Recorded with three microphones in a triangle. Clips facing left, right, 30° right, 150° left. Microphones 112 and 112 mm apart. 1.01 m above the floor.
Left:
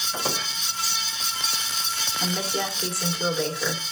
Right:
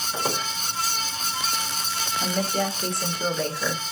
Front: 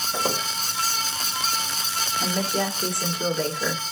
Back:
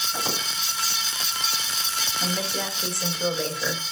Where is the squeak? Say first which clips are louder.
Right 2 dB, front 5 dB; 15° right, 2 m.